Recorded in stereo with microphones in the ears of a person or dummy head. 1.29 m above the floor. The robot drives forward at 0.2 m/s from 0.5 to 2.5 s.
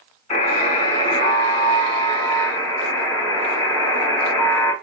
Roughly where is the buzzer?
Left.